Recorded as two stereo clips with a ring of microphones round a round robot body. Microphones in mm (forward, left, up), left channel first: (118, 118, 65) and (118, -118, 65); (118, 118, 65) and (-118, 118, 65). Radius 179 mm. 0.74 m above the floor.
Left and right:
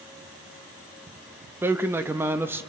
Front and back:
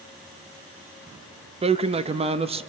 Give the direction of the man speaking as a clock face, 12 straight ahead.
5 o'clock.